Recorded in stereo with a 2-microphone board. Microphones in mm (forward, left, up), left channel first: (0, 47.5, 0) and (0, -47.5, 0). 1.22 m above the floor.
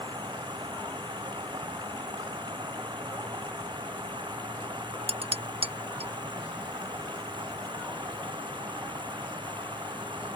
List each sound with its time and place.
0.0 s running water: 50° right (ahead or behind)
5.1 s dishes clattering: 80° right